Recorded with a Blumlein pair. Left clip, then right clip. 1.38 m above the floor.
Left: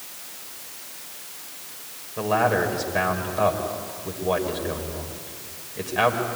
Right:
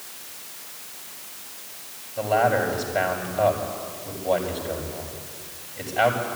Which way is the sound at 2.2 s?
65° left.